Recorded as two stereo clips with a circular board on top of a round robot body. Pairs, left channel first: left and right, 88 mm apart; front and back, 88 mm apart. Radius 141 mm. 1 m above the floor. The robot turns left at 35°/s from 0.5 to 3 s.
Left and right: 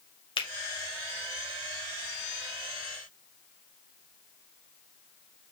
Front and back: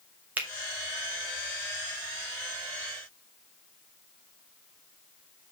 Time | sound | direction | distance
0.4 | a finger snap | 110° left | 1.7 m